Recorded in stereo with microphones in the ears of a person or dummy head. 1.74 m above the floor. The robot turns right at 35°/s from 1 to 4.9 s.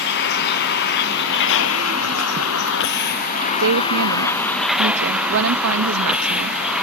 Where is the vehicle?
60° left (ahead or behind); by 6.8 s 5° right (ahead or behind).